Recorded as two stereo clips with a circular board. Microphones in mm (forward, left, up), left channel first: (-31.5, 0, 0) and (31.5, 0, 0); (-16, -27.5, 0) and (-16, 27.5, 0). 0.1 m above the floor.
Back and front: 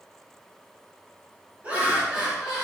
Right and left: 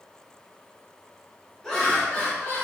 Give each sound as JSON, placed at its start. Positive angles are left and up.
{"t": 1.6, "sound": "laughter", "azimuth_deg": -25, "distance_m": 1.1}